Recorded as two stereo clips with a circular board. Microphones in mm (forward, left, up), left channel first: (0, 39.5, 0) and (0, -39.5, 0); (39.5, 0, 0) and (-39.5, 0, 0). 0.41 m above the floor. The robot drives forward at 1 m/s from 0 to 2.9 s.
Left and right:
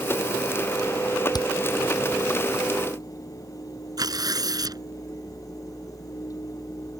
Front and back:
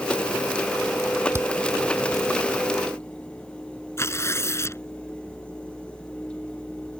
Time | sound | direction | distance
1.3 | hammering | 125° left | ?
4.0 | tearing paper | 55° right | ?